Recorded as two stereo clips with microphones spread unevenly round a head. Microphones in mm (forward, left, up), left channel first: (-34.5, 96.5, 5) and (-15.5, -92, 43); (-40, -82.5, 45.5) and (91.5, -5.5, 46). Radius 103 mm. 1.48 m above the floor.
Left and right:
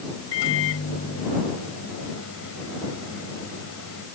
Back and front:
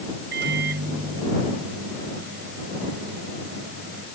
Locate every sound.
0.3 s a microwave: 70° left